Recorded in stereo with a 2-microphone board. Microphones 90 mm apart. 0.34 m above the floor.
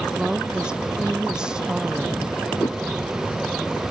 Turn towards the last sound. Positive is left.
turn(degrees=45)  # may be behind; listen again after turning